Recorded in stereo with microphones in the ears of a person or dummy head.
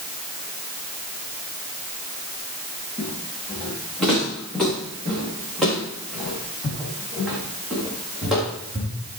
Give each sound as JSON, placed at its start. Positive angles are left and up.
{"t": 3.0, "sound": "footsteps", "side_deg": 5, "distance_m": 6.0}